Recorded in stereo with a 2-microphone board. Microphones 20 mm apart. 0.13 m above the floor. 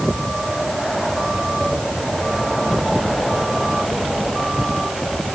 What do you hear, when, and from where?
Only background noise.